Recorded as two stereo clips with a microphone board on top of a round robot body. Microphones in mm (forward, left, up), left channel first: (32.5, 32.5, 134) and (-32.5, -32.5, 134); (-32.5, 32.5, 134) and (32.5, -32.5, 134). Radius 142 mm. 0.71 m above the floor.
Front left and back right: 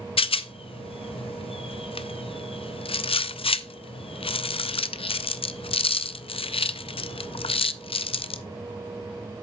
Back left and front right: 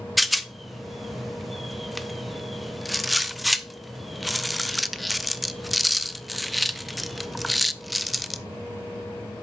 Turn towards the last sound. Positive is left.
turn(degrees=45)